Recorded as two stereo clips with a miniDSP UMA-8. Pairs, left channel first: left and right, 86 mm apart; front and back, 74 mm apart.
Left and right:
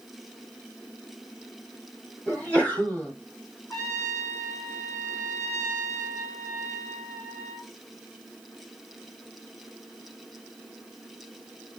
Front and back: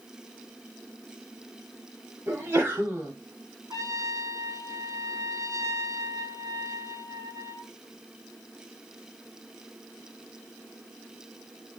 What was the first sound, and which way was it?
A sneeze, 145° left.